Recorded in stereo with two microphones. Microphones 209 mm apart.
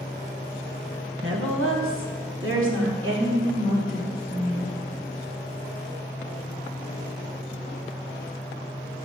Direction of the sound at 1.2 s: 70° right (ahead or behind).